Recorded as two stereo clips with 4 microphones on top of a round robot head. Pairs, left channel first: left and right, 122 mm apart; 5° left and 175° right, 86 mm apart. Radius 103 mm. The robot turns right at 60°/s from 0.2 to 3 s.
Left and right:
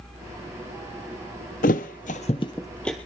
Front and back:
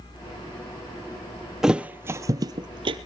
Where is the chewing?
No chewing in this recording.